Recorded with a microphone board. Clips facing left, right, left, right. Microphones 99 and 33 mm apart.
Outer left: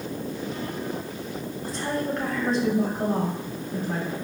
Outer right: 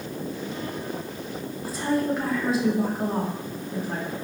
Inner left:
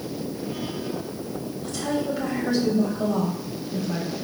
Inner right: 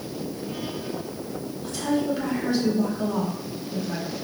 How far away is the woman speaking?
About 2.5 m.